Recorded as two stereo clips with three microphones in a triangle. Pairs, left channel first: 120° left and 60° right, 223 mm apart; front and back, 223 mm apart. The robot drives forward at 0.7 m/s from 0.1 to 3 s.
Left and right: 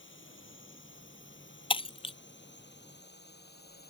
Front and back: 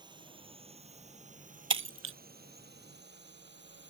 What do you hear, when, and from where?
0.0 s a drone: 115° left; by 3.9 s 155° left
1.7 s breaking glass: 175° right